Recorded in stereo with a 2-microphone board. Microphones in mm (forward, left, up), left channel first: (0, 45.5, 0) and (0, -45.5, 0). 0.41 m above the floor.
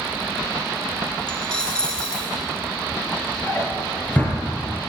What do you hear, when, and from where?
1.3 s a dropped coin: 10° left (ahead or behind), 2 m
3.5 s a drawer: 20° left (ahead or behind), 3 m